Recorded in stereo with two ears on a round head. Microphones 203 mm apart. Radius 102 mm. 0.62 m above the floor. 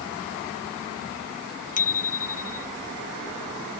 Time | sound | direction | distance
1.8 | a bicycle bell | 35° left (ahead or behind) | ?